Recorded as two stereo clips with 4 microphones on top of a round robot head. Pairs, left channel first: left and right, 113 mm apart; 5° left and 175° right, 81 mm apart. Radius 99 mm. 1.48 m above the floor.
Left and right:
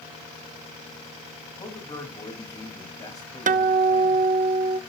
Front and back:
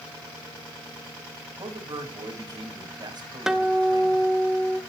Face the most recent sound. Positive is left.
turn(degrees=-90)